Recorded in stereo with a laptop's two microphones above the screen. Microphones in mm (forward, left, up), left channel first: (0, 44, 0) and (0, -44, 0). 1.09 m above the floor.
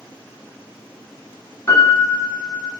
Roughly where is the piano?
Left.